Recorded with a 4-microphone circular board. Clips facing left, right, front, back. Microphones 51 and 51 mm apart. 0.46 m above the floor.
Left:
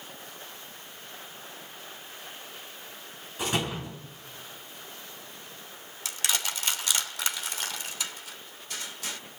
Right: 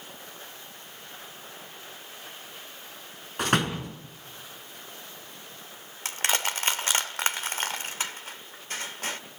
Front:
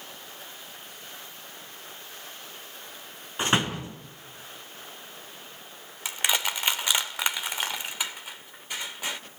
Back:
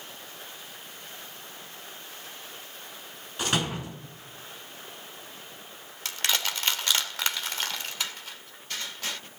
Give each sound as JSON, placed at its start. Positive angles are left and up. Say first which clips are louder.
{"t": 3.4, "sound": "a door slam", "louder": "right 4 dB, front 3 dB", "azimuth_deg": -60, "distance_m": 4.0}
{"t": 6.0, "sound": "crushing", "louder": "right 4 dB, front 2 dB", "azimuth_deg": -70, "distance_m": 1.6}